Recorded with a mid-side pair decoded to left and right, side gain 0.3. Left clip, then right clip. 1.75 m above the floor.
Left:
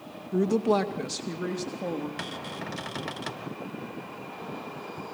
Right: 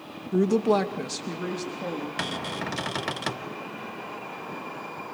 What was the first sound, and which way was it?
A woman speaking, 30° right.